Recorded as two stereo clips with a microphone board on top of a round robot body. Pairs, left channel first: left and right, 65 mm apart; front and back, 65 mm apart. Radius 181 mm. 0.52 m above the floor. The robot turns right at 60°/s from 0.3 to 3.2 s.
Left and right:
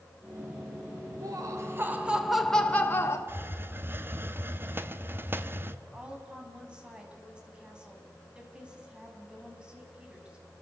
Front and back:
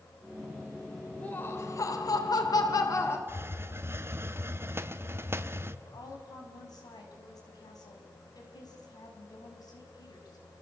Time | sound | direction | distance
1.2 | laughter | 70° right | 3 m
3.3 | a hiss | 135° right | 1.4 m
5.8 | a woman speaking | 15° right | 6 m